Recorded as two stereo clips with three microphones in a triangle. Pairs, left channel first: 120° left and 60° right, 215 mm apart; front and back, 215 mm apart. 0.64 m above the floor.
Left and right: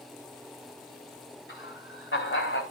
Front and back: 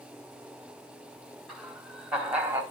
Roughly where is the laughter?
Left.